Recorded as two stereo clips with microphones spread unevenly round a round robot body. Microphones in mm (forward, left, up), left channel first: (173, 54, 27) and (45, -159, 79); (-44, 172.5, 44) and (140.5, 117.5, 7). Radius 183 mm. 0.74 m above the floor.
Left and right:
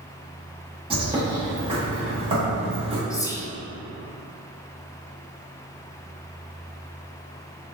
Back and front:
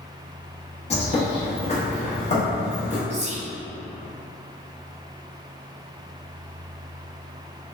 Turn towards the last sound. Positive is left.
turn(degrees=0)